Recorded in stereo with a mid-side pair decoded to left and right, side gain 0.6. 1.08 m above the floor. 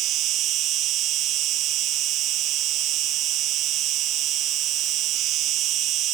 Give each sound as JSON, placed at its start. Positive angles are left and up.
{"t": 0.0, "sound": "an insect", "azimuth_deg": -60}